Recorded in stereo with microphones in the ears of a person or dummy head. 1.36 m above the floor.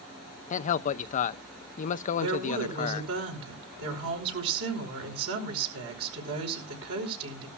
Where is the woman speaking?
85° right, 5 m.